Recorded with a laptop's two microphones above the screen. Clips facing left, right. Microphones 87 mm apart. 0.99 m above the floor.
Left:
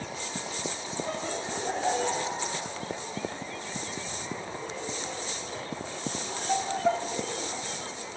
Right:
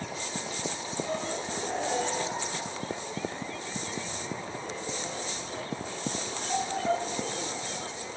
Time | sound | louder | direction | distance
1.0 | laughter | even | 35° left (ahead or behind) | 6.5 m